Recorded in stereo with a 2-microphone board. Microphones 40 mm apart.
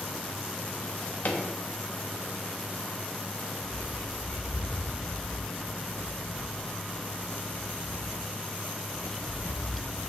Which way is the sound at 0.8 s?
50° left (ahead or behind).